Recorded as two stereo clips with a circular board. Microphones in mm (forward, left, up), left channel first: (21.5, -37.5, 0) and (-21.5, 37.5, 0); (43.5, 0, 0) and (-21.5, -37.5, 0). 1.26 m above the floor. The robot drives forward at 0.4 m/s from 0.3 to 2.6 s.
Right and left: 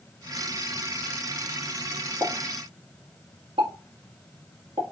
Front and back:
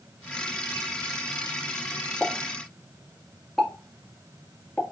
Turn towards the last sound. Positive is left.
turn(degrees=115)